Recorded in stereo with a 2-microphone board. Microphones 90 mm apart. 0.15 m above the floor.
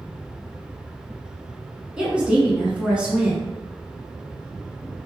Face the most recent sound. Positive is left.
turn(degrees=-10)  # may be behind; listen again after turning